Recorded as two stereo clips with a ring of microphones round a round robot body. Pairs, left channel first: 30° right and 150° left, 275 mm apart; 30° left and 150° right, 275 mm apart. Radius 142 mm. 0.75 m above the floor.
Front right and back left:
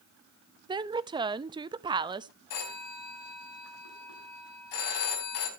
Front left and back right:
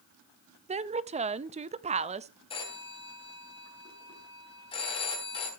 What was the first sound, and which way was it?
A woman speaking, 160° right.